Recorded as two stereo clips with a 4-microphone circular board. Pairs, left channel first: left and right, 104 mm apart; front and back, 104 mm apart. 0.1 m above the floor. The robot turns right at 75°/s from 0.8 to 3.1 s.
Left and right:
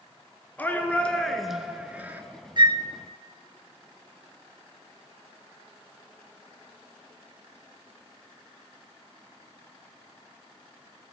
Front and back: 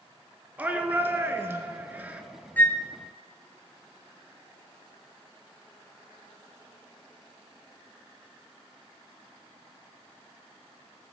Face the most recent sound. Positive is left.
turn(degrees=-25)